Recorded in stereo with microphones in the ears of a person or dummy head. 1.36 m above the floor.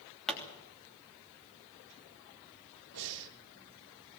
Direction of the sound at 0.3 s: 5° left (ahead or behind).